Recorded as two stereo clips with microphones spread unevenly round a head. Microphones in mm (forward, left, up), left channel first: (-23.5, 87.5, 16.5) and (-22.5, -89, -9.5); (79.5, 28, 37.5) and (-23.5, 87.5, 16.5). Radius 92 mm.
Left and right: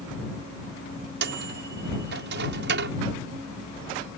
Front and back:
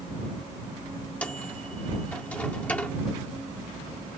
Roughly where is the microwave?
Right.